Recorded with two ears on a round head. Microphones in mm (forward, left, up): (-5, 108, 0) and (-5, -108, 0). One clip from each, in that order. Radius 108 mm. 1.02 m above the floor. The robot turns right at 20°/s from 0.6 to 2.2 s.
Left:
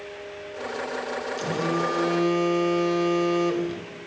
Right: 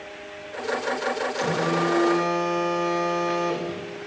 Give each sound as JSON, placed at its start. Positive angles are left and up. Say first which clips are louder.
{"t": 1.4, "sound": "a phone buzzing", "louder": "right 1 dB", "side_deg": 5, "distance_m": 4.5}